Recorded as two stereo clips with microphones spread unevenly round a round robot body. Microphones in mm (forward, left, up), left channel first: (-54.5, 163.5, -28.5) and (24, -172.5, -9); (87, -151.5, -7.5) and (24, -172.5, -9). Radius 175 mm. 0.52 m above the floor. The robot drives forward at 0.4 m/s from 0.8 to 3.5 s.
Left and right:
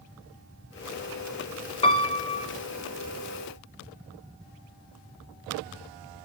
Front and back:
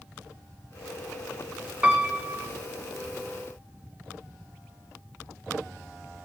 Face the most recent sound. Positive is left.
turn(degrees=170)